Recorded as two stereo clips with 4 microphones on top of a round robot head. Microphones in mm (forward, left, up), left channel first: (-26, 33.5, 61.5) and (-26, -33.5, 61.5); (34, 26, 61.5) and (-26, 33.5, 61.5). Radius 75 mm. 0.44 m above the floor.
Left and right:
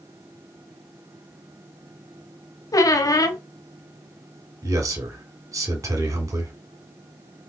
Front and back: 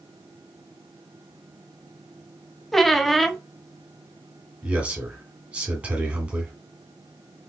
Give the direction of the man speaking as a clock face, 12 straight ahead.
4 o'clock.